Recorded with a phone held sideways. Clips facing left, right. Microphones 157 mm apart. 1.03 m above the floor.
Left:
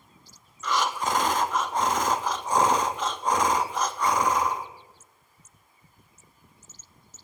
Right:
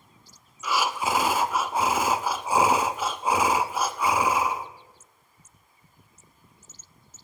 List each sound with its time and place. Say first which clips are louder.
0.6 s breathing: even; 5° right (ahead or behind), 0.7 m